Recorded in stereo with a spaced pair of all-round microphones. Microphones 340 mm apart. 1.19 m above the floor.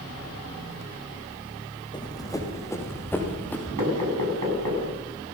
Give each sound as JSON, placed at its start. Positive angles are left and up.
{"t": 1.9, "sound": "running footsteps", "side_deg": 15, "distance_m": 4.0}
{"t": 3.8, "sound": "knocking", "side_deg": -80, "distance_m": 7.5}